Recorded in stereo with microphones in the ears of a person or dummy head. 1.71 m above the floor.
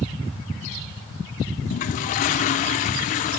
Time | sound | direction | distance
1.7 | a toilet flushing | 40° left (ahead or behind) | 0.8 m